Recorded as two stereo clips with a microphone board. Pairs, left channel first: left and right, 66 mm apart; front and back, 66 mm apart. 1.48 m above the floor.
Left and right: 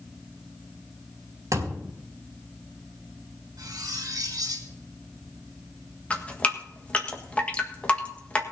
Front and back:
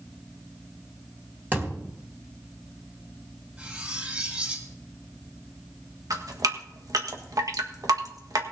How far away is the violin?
No violin in this recording.